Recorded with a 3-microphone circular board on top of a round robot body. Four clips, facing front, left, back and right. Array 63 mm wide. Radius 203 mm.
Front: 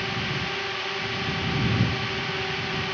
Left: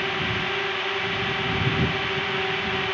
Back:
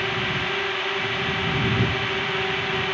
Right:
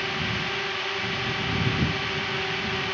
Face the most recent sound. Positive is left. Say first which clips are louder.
# left 3 dB, back 4 dB
turn(degrees=150)